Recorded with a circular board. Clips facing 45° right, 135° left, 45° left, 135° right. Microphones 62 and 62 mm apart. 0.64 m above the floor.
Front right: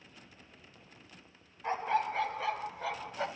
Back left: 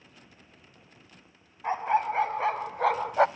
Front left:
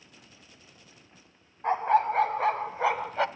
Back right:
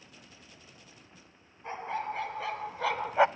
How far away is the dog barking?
About 1.5 m.